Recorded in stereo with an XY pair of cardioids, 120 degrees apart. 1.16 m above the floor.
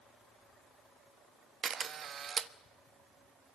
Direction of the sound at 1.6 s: 45° right.